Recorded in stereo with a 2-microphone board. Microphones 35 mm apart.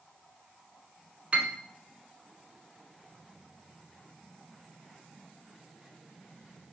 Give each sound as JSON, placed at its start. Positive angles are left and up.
{"t": 1.3, "sound": "a piano", "side_deg": -40, "distance_m": 0.7}